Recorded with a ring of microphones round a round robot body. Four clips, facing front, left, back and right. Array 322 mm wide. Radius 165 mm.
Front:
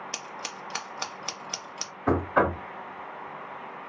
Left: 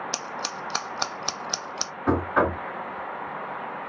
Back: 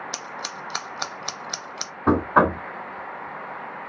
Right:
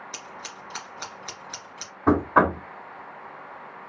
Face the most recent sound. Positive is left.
turn(degrees=-145)